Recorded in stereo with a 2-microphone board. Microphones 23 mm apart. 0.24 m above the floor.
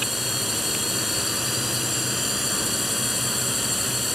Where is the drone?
10° right (ahead or behind); by 4.2 s 5° right (ahead or behind).